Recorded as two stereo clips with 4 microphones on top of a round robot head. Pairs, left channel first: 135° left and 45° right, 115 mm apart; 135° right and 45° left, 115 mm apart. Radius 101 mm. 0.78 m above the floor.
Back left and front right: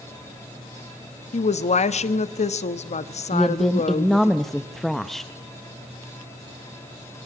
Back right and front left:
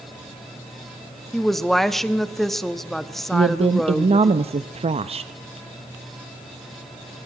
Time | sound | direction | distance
1.3 | a woman speaking | 135° left | 1.1 m
3.3 | a woman speaking | 50° left | 0.8 m